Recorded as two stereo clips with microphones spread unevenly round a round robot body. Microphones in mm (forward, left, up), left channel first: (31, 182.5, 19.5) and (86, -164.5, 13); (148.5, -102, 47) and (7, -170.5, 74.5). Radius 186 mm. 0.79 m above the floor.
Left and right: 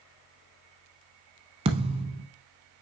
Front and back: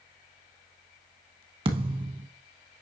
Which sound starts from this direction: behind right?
A thud, at 1.6 s.